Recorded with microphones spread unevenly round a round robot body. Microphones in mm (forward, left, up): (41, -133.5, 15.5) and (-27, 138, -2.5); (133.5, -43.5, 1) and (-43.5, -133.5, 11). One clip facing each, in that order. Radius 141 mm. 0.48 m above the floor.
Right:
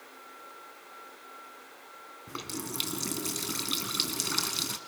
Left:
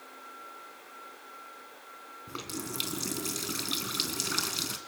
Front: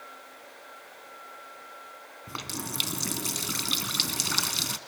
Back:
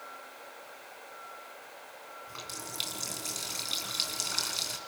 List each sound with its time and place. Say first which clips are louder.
2.3 s a running tap: even, front 11 dB; 10° left, 3 m